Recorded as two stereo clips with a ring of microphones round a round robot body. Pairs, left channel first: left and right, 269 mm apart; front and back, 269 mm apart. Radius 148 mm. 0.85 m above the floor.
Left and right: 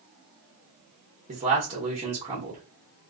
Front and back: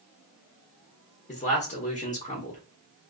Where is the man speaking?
40° right, 0.9 m.